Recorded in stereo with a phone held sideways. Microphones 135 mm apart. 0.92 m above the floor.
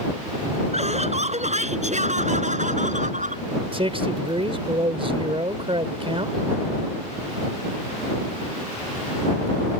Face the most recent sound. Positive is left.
turn(degrees=-45)  # may be behind; listen again after turning